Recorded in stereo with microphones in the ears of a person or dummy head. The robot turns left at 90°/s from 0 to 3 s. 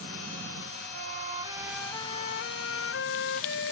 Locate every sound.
0.9 s a flute: 100° right; by 3.7 s 70° left